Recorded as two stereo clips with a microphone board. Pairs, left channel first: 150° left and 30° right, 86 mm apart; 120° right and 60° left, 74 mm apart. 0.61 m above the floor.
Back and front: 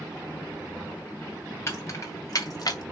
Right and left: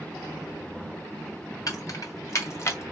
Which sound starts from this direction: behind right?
Keys jangling, at 1.7 s.